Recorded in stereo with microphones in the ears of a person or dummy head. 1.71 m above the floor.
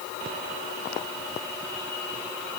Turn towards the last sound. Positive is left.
No sound to turn to.